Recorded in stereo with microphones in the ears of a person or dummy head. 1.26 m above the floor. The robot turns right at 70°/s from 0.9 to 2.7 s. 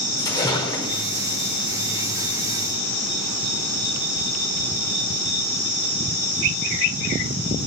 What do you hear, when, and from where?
0.2 s a splash: 20° left (ahead or behind), 4.5 m; by 1.0 s 10° left (ahead or behind), 4.5 m